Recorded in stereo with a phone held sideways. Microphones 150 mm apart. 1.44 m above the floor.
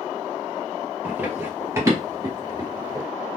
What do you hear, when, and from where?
1.0 s running footsteps: 15° right (ahead or behind), 1.8 m; by 3.1 s 30° right (ahead or behind), 1.7 m